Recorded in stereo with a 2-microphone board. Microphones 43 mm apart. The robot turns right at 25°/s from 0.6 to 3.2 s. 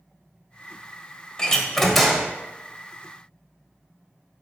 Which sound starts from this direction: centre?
A door slam, at 1.4 s.